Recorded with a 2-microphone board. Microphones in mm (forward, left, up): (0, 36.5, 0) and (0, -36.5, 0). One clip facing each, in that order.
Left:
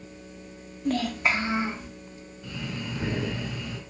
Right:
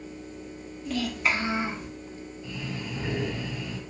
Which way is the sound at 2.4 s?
70° left (ahead or behind).